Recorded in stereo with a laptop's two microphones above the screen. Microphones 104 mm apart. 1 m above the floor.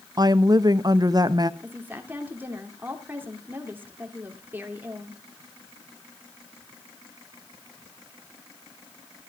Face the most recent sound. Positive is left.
turn(degrees=-20)  # may be behind; listen again after turning